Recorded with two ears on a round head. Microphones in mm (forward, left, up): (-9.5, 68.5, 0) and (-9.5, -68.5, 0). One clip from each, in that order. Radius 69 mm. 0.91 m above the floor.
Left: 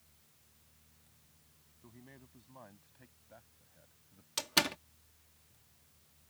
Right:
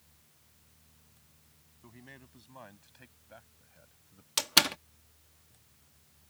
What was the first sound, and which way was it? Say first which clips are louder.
A man speaking: right 5 dB; 45° right (ahead or behind).